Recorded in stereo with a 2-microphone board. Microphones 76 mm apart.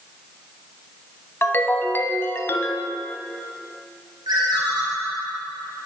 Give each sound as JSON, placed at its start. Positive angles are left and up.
{"t": 1.4, "sound": "a ringtone", "side_deg": 30, "distance_m": 0.6}
{"t": 4.3, "sound": "a ringtone", "side_deg": -65, "distance_m": 2.0}